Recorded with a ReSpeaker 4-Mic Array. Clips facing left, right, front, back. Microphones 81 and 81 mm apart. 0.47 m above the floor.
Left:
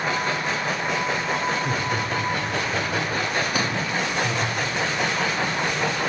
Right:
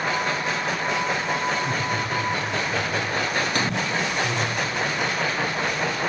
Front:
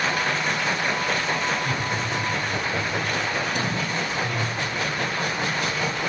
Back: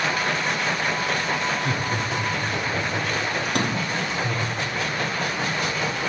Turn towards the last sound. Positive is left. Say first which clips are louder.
# even, back 1 dB
turn(degrees=175)